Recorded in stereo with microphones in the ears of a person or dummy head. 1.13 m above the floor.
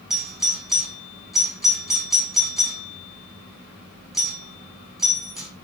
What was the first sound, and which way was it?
A doorbell, centre (ahead or behind).